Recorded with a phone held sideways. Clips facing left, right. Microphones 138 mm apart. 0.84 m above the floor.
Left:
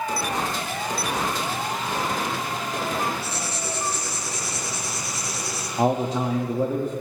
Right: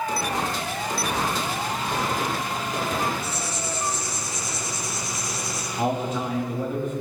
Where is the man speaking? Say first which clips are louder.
Left 4 dB; 35° left (ahead or behind), 1.1 m.